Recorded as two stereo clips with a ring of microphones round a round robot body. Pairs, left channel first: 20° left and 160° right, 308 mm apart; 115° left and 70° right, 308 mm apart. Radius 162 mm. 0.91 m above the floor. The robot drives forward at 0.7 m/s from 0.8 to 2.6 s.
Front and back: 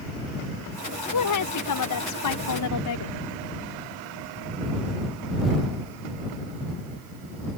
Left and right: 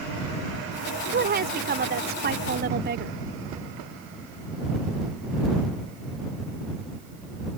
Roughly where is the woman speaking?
Ahead.